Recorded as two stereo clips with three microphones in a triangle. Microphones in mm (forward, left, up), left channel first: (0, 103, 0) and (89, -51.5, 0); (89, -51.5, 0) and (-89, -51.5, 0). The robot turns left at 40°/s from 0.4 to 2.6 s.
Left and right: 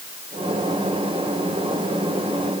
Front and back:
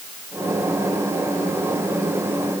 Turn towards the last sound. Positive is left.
No sound to turn to.